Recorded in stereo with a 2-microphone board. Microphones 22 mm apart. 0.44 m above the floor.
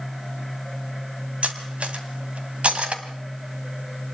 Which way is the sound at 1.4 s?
75° right (ahead or behind).